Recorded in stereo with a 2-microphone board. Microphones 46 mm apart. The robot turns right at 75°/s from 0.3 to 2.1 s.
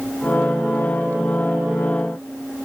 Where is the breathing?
I don't hear breathing.